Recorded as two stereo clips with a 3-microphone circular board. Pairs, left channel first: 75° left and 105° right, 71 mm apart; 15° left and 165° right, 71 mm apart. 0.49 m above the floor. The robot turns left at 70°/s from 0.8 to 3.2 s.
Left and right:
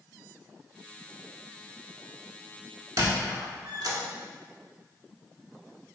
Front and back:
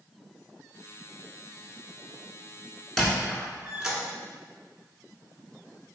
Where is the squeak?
70° right, 0.7 m; by 4.0 s 85° right, 0.7 m.